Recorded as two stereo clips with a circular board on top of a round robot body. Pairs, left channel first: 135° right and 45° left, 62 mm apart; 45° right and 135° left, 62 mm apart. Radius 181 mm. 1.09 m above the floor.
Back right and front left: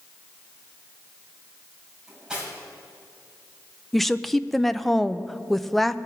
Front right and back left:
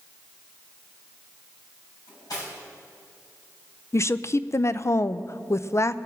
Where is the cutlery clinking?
35° right, 5.5 m.